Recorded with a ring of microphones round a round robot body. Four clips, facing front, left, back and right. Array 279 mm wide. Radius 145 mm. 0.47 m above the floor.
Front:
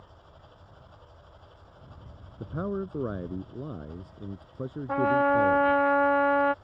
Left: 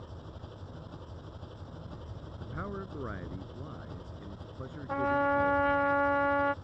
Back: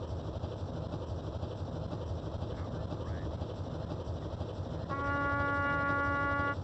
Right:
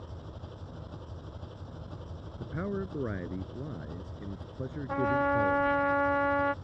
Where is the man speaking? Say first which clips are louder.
Right 5 dB, front 8 dB; 25° right.